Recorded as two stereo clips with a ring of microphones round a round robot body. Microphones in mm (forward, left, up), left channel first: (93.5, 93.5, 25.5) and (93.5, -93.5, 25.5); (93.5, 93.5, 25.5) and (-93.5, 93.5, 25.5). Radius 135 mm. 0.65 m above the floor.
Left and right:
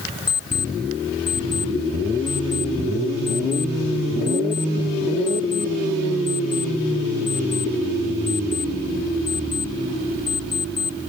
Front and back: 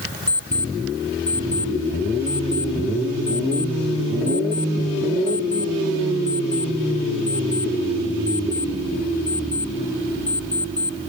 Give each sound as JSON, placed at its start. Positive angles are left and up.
{"t": 0.3, "sound": "an alarm clock", "azimuth_deg": 55}